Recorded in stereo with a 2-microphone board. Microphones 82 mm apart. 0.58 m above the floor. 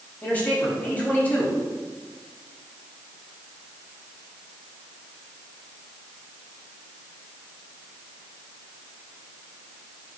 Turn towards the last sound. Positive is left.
turn(degrees=25)  # may be behind; listen again after turning